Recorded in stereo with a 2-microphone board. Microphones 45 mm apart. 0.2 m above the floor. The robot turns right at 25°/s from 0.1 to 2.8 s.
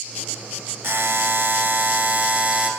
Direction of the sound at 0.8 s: 90° right.